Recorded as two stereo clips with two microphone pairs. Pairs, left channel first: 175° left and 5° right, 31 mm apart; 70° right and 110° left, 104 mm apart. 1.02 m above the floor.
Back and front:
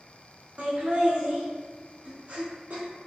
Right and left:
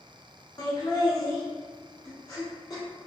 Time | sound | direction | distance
0.6 | laughter | 20° right | 1.1 m